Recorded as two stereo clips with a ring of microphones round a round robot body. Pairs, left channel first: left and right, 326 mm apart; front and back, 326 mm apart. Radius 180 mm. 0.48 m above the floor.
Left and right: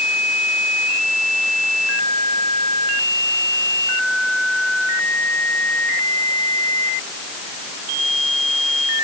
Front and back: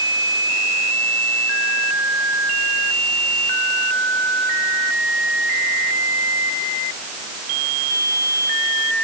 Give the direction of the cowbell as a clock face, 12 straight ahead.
I don't hear a cowbell.